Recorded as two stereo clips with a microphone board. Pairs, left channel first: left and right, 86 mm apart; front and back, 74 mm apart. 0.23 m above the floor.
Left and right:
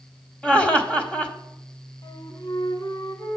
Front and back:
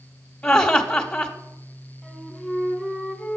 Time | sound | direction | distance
0.4 | laughter | 45° left | 1.0 m
2.0 | a flute | 80° left | 1.0 m